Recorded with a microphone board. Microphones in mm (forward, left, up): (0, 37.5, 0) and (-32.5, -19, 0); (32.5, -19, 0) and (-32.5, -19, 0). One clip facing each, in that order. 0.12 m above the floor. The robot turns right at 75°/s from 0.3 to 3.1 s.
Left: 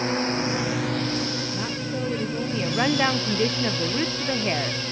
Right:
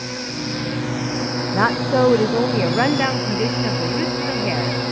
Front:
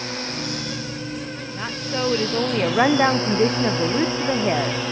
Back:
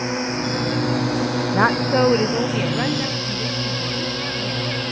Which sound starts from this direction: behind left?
A drone, at 0.0 s.